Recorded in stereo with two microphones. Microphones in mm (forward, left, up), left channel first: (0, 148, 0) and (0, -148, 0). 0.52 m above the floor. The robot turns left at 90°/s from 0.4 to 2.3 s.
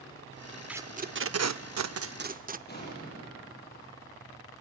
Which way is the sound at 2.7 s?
35° left (ahead or behind).